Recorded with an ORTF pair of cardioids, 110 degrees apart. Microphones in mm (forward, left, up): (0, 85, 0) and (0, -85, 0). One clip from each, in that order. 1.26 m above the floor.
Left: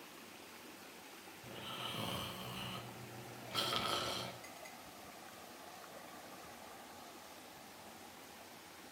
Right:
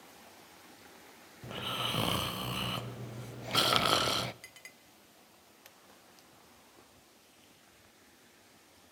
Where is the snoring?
55° right, 0.6 m.